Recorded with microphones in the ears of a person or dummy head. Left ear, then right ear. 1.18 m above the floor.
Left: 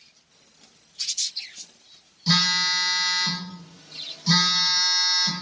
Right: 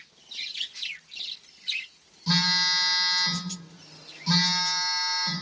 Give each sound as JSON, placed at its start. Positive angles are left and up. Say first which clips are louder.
{"t": 2.3, "sound": "a phone buzzing", "louder": "left 2 dB", "side_deg": 20, "distance_m": 0.7}